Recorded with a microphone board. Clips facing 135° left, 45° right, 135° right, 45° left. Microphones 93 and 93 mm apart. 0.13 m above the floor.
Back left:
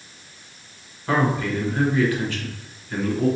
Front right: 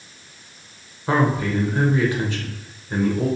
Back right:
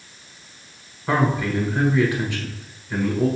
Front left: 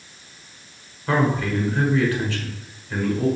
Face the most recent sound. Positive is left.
turn(degrees=-80)